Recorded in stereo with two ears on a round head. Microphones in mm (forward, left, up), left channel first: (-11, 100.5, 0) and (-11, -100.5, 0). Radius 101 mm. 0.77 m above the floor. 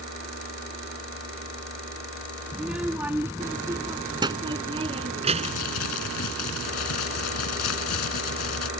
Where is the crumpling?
80° left.